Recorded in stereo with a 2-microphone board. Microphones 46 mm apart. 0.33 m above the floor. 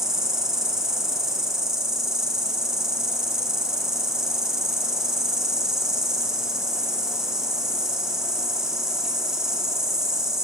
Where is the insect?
15° right (ahead or behind), 2.5 m.